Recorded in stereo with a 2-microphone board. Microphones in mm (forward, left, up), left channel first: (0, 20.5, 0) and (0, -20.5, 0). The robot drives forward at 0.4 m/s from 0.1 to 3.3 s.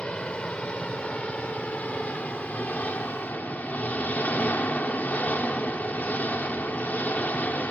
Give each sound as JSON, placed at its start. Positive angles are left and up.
{"t": 0.0, "sound": "an engine running", "side_deg": 30}